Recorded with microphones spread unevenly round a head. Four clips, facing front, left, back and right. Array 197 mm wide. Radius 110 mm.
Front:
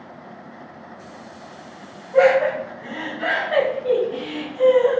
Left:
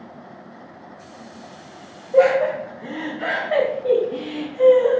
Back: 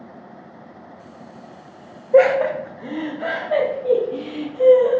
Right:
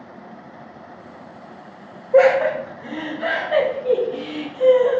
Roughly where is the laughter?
Behind right.